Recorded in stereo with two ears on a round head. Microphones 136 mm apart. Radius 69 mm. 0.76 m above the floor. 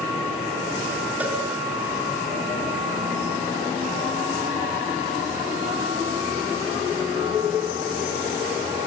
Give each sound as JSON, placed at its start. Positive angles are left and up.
{"t": 1.2, "sound": "a cowbell", "side_deg": -10, "distance_m": 5.0}